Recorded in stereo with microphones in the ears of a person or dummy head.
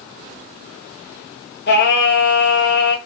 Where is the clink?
I don't hear a clink.